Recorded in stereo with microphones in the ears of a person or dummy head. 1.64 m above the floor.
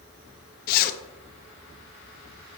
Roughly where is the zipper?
Left.